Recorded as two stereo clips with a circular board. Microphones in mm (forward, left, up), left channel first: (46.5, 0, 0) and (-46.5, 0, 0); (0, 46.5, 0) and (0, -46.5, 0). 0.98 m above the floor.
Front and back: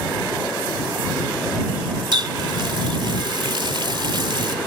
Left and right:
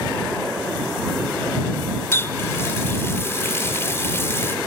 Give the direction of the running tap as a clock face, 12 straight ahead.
7 o'clock.